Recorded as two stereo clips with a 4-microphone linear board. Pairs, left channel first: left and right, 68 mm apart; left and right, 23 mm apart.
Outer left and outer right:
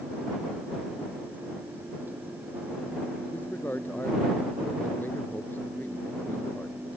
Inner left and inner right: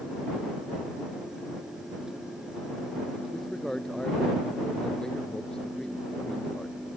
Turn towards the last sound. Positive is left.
turn(degrees=30)  # may be behind; listen again after turning